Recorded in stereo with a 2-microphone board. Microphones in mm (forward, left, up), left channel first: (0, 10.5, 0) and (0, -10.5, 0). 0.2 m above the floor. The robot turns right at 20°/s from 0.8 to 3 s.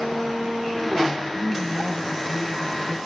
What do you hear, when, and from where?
1.4 s a woman speaking: 50° right, 1.7 m; by 3.0 s 20° right, 1.7 m